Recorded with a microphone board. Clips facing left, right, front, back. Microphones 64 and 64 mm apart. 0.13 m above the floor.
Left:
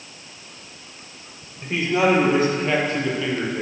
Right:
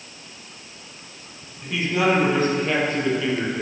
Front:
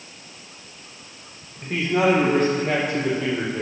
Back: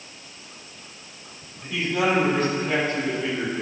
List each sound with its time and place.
1.6 s a man speaking: 35° left, 3.5 m; by 3.6 s 10° right, 4 m